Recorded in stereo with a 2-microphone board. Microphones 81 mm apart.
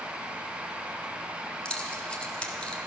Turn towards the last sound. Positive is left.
turn(degrees=15)  # may be behind; listen again after turning